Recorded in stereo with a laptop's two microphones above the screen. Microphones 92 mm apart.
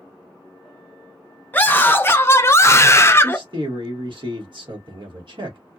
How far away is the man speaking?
About 1.6 m.